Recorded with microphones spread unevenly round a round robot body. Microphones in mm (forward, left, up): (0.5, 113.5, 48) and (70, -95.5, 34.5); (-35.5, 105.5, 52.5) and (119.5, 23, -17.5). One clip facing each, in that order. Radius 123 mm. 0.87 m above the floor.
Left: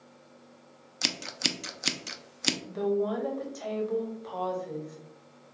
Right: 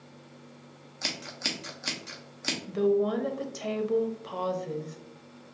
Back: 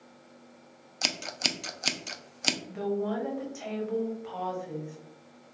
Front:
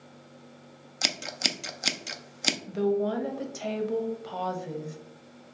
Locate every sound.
1.0 s scissors: 65° left, 0.5 m
2.7 s a woman speaking: 25° right, 1.0 m